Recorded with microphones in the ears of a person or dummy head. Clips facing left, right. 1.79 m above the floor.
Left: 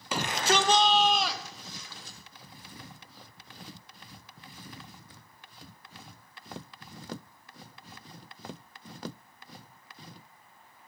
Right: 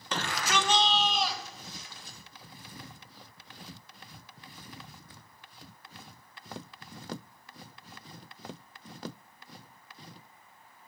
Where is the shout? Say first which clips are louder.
Left 4 dB; 10° left (ahead or behind), 0.6 m; by 2.2 s 65° left (ahead or behind), 1.7 m.